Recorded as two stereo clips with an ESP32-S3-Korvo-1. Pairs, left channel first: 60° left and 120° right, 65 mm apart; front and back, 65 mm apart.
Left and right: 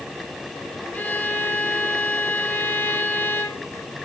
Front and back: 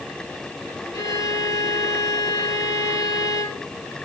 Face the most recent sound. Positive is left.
turn(degrees=0)